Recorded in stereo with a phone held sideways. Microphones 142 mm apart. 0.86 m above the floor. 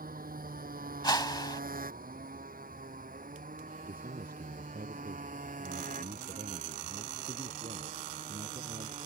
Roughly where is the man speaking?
Right.